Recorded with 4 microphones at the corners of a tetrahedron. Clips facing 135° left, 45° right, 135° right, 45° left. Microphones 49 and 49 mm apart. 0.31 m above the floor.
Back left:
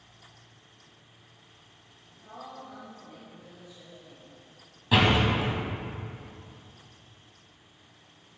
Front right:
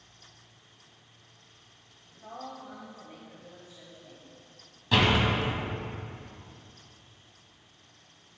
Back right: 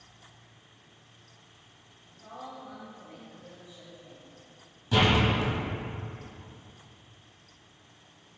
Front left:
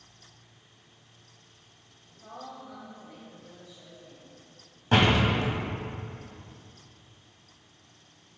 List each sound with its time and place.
2.1 s a woman speaking: 40° right, 1.3 m; by 4.4 s 80° right, 1.9 m
4.9 s a door slam: 60° left, 1.3 m